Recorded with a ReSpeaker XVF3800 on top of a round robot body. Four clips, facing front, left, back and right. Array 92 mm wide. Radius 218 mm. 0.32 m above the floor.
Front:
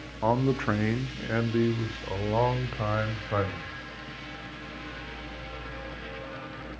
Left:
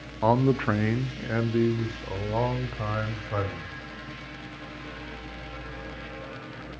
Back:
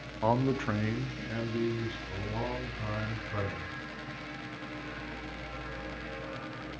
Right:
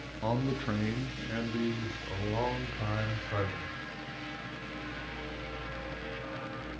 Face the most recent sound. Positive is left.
turn(degrees=25)